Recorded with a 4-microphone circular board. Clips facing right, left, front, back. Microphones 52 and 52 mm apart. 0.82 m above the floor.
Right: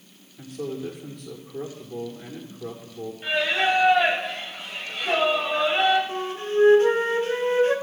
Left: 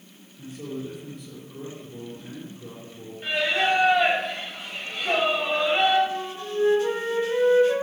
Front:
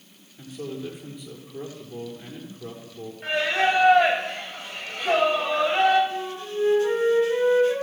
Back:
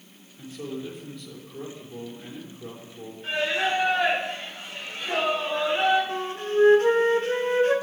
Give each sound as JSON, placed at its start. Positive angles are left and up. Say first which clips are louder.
{"t": 0.4, "sound": "a man speaking", "louder": "right 3 dB, front 1 dB", "azimuth_deg": -70, "distance_m": 6.0}
{"t": 3.2, "sound": "singing", "louder": "right 1 dB, front 3 dB", "azimuth_deg": 0, "distance_m": 5.5}
{"t": 6.1, "sound": "a flute", "louder": "right 3 dB, back 3 dB", "azimuth_deg": -135, "distance_m": 3.0}